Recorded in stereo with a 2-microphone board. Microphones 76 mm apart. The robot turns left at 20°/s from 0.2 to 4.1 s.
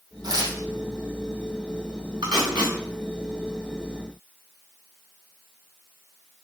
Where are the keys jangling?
I don't hear keys jangling.